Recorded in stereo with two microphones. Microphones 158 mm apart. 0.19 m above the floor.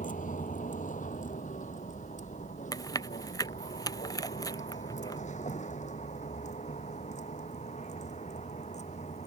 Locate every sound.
0.0 s a vehicle: 55° left (ahead or behind); by 9.3 s 45° left (ahead or behind)
2.7 s chewing: 20° left (ahead or behind)